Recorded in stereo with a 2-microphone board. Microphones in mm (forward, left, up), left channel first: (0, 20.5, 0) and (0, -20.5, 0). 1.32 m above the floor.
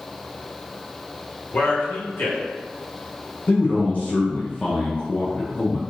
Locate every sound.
1.5 s a man speaking: 60° left (ahead or behind), 1.6 m
3.5 s a man speaking: 35° left (ahead or behind), 0.6 m